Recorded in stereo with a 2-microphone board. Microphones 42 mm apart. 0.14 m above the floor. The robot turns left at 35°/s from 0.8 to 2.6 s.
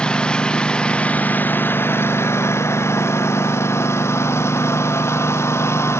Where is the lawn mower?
160° left; by 6.0 s 95° left.